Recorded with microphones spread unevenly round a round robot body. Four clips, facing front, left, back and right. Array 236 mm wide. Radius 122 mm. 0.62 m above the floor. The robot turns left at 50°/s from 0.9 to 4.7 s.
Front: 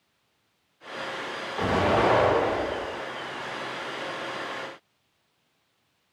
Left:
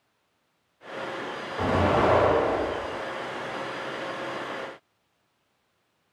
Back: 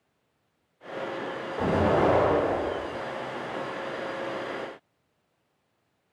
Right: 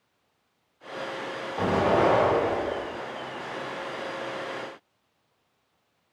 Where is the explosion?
90° right, 1.9 m; by 3.0 s 160° right, 1.9 m.